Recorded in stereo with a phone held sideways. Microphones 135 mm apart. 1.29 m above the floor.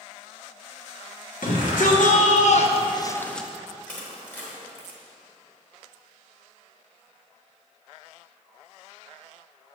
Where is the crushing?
10° left (ahead or behind), 1.3 m.